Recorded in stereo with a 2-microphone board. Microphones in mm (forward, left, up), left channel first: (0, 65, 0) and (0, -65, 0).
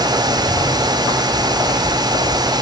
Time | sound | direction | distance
0.3 | a bird | 45° right (ahead or behind) | 7.5 m